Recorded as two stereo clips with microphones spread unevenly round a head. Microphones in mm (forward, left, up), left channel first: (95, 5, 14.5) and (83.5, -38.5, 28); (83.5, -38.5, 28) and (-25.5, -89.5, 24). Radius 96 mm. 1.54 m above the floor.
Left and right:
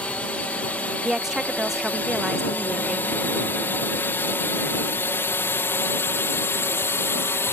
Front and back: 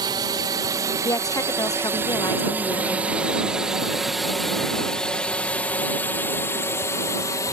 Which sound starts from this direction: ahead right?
A woman speaking, at 1.0 s.